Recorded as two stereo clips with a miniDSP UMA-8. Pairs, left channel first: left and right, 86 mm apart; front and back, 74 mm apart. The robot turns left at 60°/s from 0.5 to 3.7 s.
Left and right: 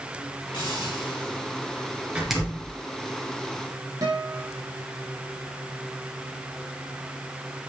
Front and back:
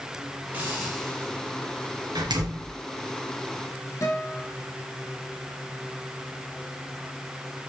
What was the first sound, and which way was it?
A hiss, 115° left.